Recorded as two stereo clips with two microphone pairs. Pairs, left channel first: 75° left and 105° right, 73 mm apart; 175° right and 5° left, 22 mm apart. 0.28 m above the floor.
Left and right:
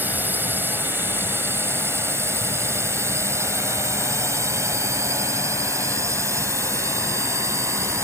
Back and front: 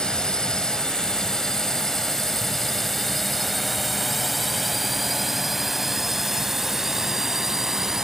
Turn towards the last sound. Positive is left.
turn(degrees=-65)